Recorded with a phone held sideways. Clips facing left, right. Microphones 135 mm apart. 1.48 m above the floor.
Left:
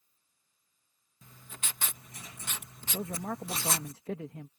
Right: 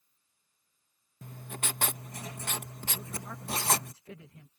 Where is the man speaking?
75° left (ahead or behind).